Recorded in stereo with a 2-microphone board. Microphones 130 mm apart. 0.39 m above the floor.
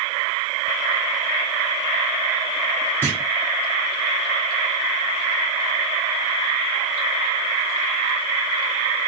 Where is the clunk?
15° right (ahead or behind), 2 m.